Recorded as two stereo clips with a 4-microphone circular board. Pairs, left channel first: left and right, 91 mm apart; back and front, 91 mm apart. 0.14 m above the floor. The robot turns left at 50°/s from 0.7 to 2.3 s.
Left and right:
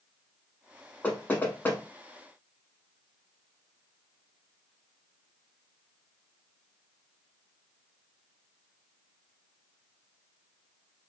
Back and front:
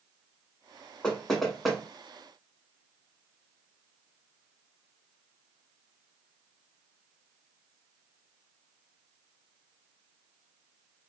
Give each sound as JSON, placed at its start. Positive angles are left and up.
{"t": 1.0, "sound": "knocking", "azimuth_deg": 120, "distance_m": 0.7}